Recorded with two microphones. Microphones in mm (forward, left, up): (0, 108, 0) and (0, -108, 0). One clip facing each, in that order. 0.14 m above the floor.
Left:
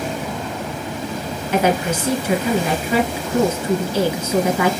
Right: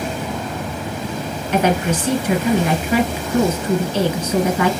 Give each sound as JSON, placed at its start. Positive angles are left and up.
{"t": 1.5, "sound": "a woman speaking", "side_deg": 10, "distance_m": 2.0}